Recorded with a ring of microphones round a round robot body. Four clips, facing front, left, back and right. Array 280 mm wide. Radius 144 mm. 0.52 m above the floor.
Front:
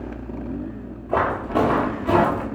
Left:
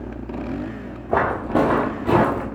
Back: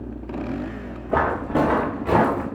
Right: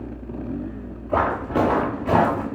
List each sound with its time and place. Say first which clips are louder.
1.1 s footsteps: left 2 dB, even; 110° left, 1.9 m; by 2.5 s 120° left, 3 m